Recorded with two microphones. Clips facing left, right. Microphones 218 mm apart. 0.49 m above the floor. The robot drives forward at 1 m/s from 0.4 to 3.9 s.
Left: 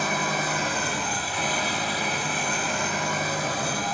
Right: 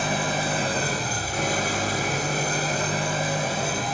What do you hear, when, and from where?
0.0 s an engine running: 30° right (ahead or behind), 2.0 m; by 4.0 s 25° right (ahead or behind), 2.5 m